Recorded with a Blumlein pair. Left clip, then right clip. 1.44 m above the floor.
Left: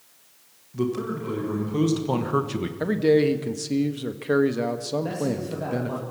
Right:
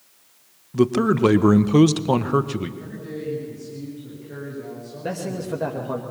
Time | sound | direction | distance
0.7 | a man speaking | 65° right | 1.3 m
2.8 | a man speaking | 50° left | 1.6 m
5.0 | a man speaking | 15° right | 2.5 m